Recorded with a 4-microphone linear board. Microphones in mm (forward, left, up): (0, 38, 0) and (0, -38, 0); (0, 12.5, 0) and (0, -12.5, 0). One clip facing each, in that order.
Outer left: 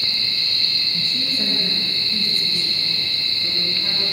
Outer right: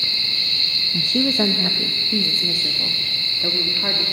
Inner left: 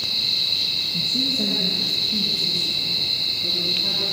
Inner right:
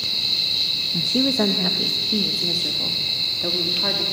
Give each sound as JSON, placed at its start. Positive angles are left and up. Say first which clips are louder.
{"t": 0.9, "sound": "a woman speaking", "louder": "outer right 13 dB, inner right 4 dB", "side_deg": -60, "distance_m": 1.4}